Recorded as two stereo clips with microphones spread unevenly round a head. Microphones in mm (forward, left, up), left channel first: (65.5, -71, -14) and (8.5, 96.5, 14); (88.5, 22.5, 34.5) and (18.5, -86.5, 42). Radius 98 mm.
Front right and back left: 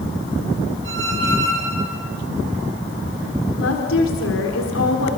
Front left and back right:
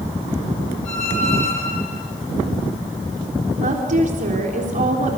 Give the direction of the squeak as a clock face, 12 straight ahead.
8 o'clock.